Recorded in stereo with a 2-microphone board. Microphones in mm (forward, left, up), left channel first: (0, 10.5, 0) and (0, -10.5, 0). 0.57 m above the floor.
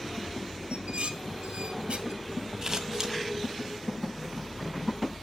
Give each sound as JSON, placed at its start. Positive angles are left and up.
{"t": 0.7, "sound": "dishes clattering", "side_deg": -60, "distance_m": 1.5}
{"t": 2.6, "sound": "scissors", "side_deg": -30, "distance_m": 1.7}